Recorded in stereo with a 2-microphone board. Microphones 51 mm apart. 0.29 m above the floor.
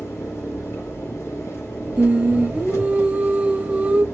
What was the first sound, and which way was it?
An engine running, 65° left (ahead or behind).